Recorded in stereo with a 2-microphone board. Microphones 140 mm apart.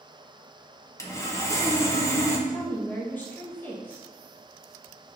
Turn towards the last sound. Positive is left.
turn(degrees=10)  # may be behind; listen again after turning